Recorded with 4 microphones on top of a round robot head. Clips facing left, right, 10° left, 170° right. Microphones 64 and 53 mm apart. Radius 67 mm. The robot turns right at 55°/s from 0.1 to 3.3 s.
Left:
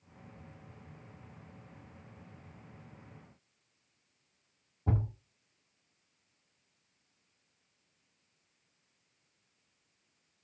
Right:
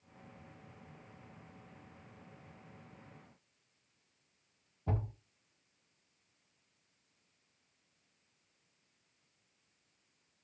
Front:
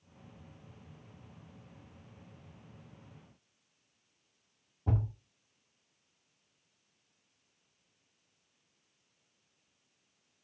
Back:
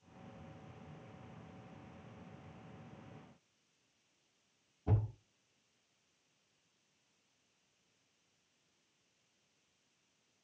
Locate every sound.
4.9 s a thud: 50° left, 1.5 m